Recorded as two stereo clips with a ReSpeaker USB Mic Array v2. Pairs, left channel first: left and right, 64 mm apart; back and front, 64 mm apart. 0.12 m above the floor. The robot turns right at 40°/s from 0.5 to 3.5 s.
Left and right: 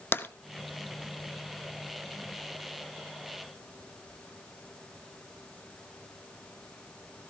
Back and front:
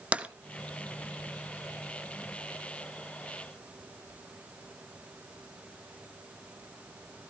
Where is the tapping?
60° left, 0.7 m.